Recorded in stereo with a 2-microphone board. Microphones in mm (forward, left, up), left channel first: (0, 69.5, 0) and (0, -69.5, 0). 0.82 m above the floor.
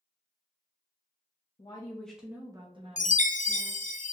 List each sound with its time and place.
1.6 s a woman speaking: 35° left (ahead or behind), 0.8 m; by 3.9 s 60° right (ahead or behind), 1.7 m
3.0 s a chime: 60° left (ahead or behind), 0.5 m